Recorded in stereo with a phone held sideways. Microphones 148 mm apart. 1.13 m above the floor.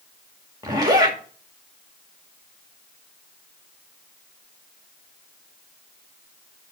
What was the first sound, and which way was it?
A zipper, 25° right (ahead or behind).